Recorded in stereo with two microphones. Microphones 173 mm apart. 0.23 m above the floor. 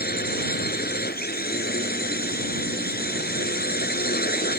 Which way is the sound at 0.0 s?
60° left (ahead or behind).